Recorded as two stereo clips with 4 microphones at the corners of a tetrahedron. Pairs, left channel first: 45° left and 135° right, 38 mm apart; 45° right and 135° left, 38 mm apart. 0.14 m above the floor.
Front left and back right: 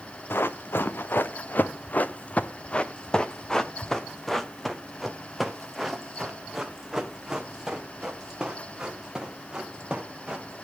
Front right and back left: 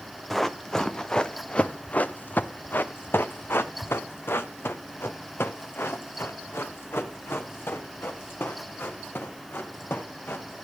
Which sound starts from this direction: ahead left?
Running footsteps, at 0.3 s.